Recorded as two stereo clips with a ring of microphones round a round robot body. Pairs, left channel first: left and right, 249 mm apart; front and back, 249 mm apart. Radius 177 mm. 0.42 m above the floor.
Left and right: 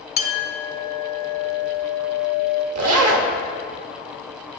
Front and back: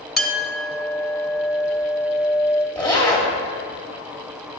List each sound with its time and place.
0.2 s a clink: 90° left, 0.7 m
2.8 s a zipper: 85° right, 0.8 m